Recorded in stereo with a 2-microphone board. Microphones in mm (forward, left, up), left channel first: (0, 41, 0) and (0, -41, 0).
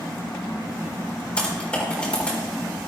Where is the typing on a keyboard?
15° left (ahead or behind), 4 m.